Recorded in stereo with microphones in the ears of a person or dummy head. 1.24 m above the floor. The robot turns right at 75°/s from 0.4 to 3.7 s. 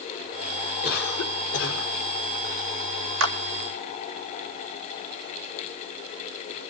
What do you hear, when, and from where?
0.8 s a cough: 45° left, 4.5 m; by 1.9 s 125° left, 4.5 m
3.2 s a clap: 65° right (ahead or behind), 2 m; by 3.4 s 75° right (ahead or behind), 2 m